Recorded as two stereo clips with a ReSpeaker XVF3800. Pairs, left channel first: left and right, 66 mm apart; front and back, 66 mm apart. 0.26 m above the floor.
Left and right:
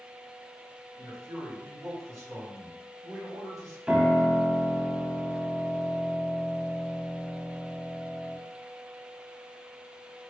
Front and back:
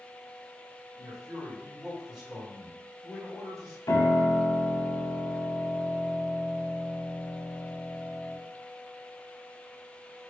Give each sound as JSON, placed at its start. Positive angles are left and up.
{"t": 1.0, "sound": "a man speaking", "azimuth_deg": -90, "distance_m": 1.8}
{"t": 3.9, "sound": "a piano", "azimuth_deg": -15, "distance_m": 0.5}